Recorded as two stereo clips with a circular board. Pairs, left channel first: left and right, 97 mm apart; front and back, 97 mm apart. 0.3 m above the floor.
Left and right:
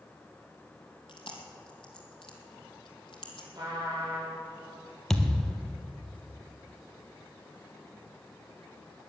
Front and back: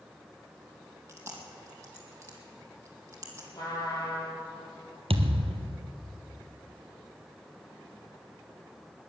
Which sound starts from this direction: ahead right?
A trumpet, at 3.5 s.